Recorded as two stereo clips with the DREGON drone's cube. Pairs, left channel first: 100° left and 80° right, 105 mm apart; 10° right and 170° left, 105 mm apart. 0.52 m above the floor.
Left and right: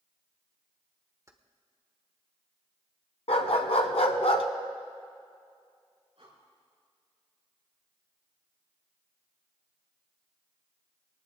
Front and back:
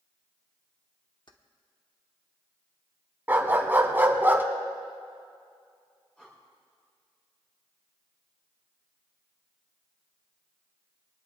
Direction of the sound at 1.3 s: 30° right.